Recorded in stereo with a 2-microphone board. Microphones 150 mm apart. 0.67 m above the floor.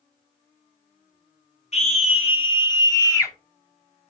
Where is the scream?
45° left (ahead or behind), 2 m; by 3.3 s 20° left (ahead or behind), 1.9 m.